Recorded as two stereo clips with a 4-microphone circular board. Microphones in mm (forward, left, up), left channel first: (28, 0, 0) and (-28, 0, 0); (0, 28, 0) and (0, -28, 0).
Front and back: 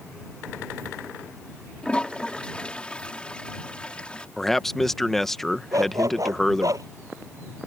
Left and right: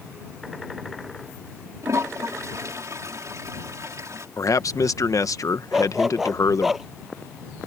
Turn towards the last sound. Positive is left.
turn(degrees=-175)